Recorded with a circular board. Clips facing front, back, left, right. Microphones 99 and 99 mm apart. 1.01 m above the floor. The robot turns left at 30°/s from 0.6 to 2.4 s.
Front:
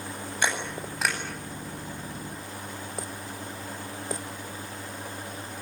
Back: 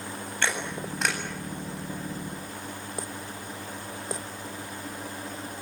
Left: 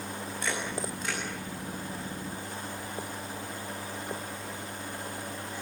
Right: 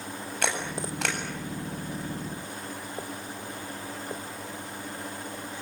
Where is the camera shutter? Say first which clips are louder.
Front 1 dB, right 3 dB; 75° right, 8 m; by 1.2 s 90° right, 8 m.